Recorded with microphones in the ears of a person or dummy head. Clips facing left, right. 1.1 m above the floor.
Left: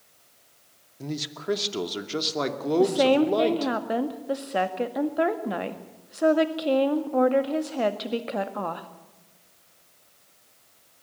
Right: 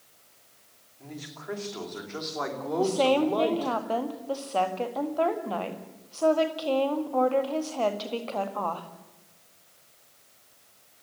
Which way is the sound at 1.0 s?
60° left (ahead or behind).